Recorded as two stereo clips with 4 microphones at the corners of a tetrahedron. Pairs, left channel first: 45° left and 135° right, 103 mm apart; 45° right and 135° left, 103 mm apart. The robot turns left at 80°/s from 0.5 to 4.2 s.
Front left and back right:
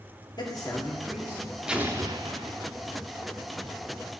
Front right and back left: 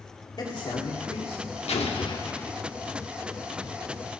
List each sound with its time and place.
0.4 s a man speaking: straight ahead, 2 m; by 1.4 s 75° right, 2 m
1.7 s an explosion: 55° right, 1.0 m; by 2.8 s 140° right, 1.0 m